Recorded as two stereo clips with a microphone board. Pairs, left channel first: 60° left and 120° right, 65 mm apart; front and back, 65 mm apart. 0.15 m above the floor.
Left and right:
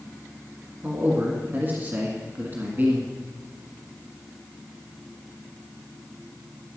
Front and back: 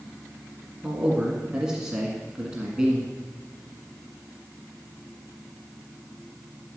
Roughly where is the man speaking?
Right.